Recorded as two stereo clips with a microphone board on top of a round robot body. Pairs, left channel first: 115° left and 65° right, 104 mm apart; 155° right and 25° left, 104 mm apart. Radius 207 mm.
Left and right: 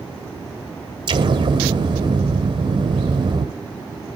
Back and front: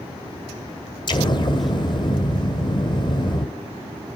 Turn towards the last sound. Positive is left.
turn(degrees=-115)